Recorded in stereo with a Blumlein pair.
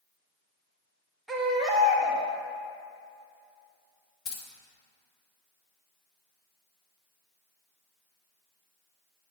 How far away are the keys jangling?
About 1.0 m.